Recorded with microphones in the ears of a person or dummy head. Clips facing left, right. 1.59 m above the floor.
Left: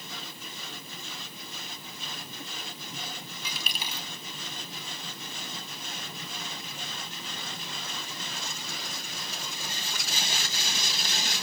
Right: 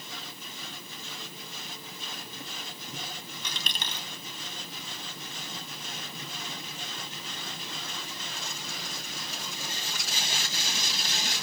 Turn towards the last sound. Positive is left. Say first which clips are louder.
# even
turn(degrees=5)  # may be behind; listen again after turning